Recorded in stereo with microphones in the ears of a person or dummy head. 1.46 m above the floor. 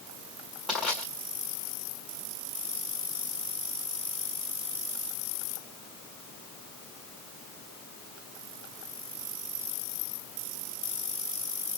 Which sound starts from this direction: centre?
Crushing, at 0.7 s.